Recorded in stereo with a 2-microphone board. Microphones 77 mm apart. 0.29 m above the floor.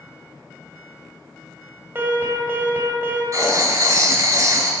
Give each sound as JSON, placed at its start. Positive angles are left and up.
{"t": 1.9, "sound": "an alarm", "side_deg": -30, "distance_m": 1.6}
{"t": 3.3, "sound": "writing", "side_deg": -45, "distance_m": 0.9}